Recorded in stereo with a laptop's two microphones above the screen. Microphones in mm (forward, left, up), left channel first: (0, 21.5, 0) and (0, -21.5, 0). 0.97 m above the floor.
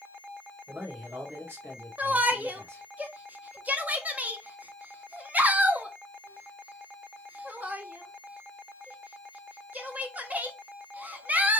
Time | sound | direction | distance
0.7 | a man speaking | 55° right (ahead or behind) | 2.5 m
2.0 | a shout | 35° right (ahead or behind) | 0.9 m